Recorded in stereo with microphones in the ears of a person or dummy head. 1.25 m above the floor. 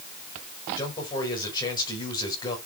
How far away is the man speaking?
About 6.5 m.